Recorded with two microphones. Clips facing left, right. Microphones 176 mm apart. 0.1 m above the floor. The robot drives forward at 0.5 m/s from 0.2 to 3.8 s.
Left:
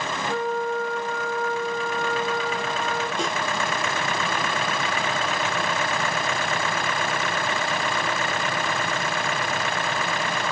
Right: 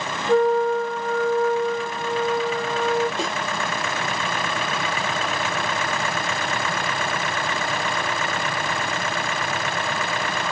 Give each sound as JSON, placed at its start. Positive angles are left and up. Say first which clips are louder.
{"t": 0.3, "sound": "a flute", "louder": "right 9 dB", "side_deg": -45, "distance_m": 0.6}
{"t": 3.2, "sound": "a snare drum", "louder": "even", "side_deg": 0, "distance_m": 1.3}